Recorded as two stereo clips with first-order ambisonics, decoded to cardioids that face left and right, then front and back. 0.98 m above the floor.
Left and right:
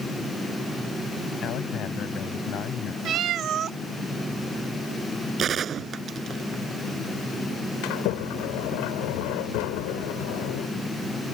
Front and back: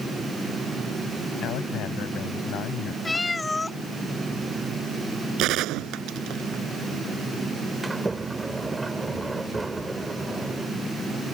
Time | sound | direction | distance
1.4 | a man speaking | 40° left | ?
3.0 | a cat meowing | 75° right | ?
5.4 | a gunshot | 150° right | ?
7.8 | a sliding door | 100° left | ?